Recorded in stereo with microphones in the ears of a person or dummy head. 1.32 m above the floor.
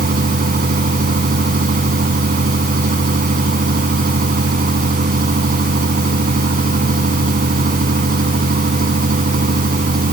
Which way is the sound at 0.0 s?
40° right (ahead or behind).